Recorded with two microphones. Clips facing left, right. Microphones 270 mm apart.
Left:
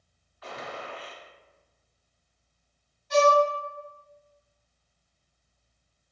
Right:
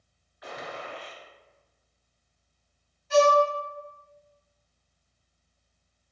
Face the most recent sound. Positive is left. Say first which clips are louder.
# right 1 dB
turn(degrees=0)  # may be behind; listen again after turning